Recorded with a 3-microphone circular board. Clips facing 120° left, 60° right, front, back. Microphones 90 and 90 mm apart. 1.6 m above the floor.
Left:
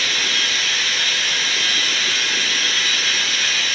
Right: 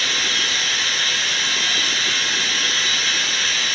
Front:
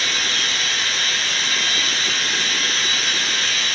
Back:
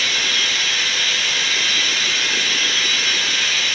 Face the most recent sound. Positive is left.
turn(degrees=-30)